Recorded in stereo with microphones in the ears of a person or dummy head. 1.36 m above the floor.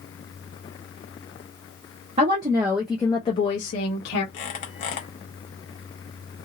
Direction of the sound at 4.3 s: 40° left (ahead or behind).